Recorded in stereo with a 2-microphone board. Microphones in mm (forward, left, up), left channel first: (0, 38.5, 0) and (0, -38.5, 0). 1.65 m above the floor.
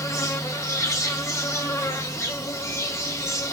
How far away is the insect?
About 1.8 m.